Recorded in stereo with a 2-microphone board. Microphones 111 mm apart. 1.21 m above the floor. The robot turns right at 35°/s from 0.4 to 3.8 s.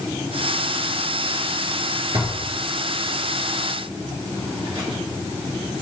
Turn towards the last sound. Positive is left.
turn(degrees=-50)  # may be behind; listen again after turning